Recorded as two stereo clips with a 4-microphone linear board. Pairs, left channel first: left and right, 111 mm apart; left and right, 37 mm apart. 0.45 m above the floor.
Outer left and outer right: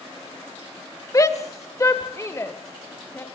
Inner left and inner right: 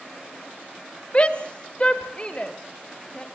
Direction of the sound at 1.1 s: 30° left (ahead or behind).